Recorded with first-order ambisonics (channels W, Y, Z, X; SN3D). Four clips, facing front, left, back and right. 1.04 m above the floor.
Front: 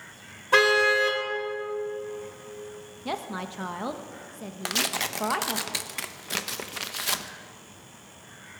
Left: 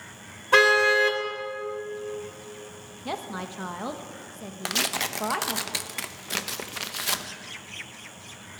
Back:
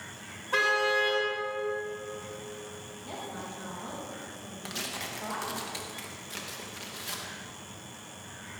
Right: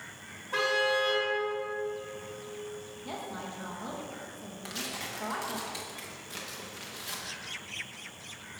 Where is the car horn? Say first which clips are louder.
Left 9 dB, front 6 dB; 55° left, 2 m.